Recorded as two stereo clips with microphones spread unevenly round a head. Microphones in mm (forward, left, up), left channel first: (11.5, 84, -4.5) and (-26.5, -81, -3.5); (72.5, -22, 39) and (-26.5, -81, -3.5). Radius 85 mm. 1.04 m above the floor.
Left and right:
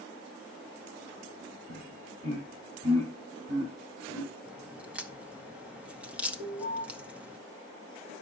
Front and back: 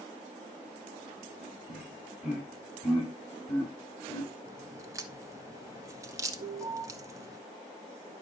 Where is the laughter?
60° right, 7.5 m; by 4.3 s 40° right, 7 m.